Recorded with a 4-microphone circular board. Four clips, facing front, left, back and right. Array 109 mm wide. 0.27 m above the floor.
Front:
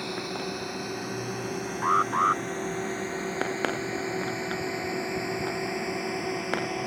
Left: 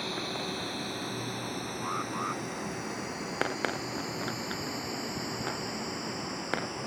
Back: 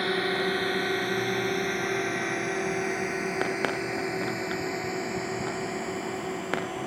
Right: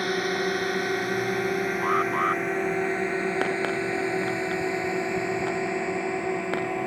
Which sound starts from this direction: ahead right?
An alarm, at 1.8 s.